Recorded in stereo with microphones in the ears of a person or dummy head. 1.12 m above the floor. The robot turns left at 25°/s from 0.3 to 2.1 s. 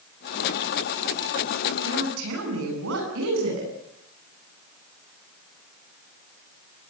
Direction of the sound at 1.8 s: 80° right.